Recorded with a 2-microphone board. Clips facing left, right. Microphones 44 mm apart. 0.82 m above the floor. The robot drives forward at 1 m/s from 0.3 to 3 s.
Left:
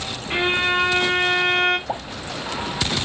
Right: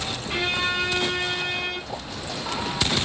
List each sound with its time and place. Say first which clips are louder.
0.3 s a violin: left 5 dB; 25° left (ahead or behind), 1.7 m; by 1.8 s 55° left (ahead or behind), 0.9 m
1.9 s a pop: left 6 dB; 80° left, 3 m; by 2.0 s 85° left, 3 m